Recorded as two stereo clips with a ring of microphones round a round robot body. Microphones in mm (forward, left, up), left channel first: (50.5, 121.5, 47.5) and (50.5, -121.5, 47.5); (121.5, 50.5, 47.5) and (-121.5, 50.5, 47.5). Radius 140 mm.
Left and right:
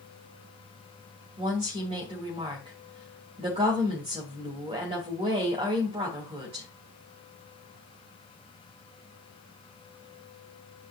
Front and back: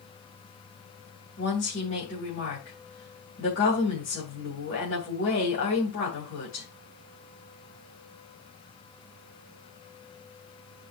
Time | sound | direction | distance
1.4 | a woman speaking | 30° right | 3 m